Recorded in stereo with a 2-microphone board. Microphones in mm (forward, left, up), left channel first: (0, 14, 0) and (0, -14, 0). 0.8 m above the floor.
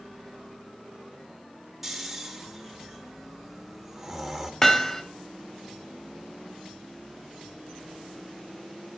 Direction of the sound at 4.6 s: 20° left (ahead or behind).